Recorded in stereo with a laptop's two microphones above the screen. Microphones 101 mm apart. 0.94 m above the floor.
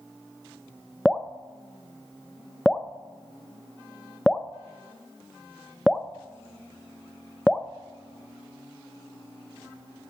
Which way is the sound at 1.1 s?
5° left (ahead or behind).